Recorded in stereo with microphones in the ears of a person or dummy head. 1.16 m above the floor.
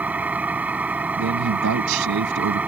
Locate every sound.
0.0 s an engine running: 5° right (ahead or behind)
1.2 s a man speaking: 75° right (ahead or behind)